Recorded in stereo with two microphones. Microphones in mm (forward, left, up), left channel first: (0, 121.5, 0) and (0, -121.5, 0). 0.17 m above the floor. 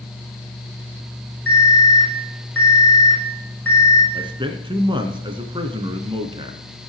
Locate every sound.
1.5 s an alarm: 60° left (ahead or behind), 6 m
4.1 s a man speaking: 20° right (ahead or behind), 1.5 m